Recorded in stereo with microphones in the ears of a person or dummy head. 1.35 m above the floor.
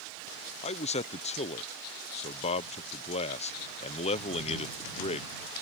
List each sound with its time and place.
0.6 s a man speaking: 35° left (ahead or behind)